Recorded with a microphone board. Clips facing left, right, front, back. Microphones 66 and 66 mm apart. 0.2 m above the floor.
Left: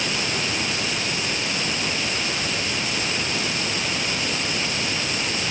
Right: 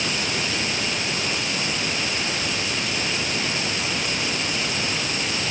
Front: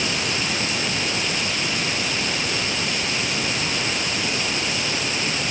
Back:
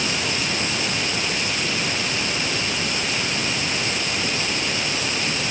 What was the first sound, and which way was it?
Only background noise.